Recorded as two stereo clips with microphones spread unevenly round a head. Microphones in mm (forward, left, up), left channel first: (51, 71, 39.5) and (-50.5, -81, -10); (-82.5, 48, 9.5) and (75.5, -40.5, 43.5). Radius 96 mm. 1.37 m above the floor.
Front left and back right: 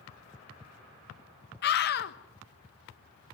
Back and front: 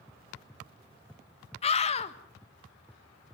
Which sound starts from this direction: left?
A scream, at 1.6 s.